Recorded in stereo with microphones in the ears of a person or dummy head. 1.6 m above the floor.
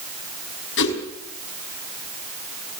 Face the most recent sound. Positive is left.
turn(degrees=65)  # may be behind; listen again after turning